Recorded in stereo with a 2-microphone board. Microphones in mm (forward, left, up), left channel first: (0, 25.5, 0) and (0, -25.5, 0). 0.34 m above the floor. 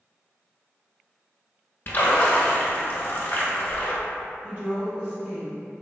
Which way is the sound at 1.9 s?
40° left (ahead or behind).